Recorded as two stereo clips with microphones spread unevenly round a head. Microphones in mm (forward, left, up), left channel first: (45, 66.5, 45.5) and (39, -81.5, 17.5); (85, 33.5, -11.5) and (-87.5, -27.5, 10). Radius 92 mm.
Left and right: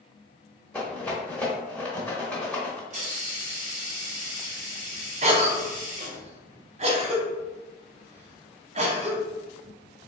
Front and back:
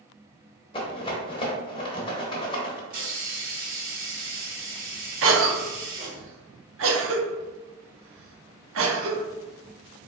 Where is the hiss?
120° right, 1.3 m.